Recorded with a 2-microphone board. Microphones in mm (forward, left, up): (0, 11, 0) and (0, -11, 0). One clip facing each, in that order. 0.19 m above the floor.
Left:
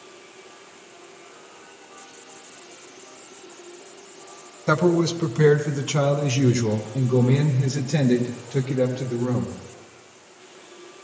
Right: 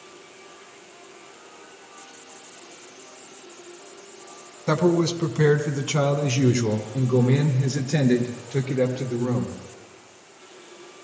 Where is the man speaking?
25° left (ahead or behind), 1.2 m; by 9.6 s 50° right (ahead or behind), 3.5 m.